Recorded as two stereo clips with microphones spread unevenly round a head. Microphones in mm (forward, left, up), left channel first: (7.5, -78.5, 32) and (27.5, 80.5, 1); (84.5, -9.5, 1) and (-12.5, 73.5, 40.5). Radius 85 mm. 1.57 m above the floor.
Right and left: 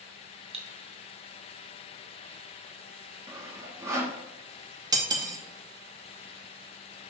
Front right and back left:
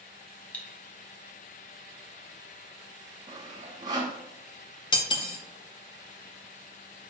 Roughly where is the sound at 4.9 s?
Ahead.